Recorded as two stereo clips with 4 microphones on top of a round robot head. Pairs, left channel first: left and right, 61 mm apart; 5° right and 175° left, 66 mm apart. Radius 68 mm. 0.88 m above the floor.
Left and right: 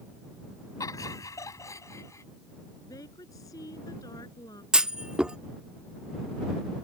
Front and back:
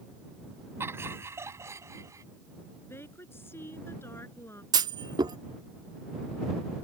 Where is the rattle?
No rattle in this recording.